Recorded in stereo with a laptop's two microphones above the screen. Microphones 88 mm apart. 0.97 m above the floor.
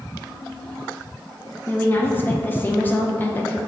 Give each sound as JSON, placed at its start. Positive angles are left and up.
{"t": 1.7, "sound": "a woman speaking", "side_deg": 25, "distance_m": 0.5}